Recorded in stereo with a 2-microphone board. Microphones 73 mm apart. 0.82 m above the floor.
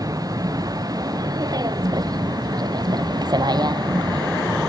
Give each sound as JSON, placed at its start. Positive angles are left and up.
{"t": 0.0, "sound": "a vehicle", "side_deg": -55}